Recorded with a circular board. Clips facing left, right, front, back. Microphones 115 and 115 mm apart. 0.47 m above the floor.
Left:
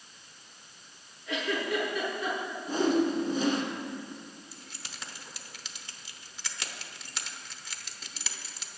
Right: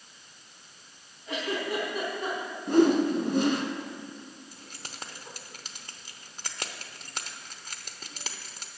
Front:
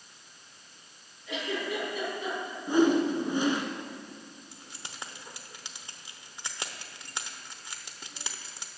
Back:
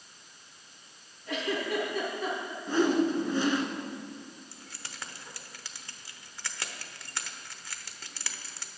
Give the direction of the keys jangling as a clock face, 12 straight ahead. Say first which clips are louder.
Right 2 dB, even; 2 o'clock.